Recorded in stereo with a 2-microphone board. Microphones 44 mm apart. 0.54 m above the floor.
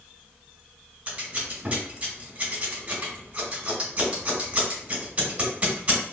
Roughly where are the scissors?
Right.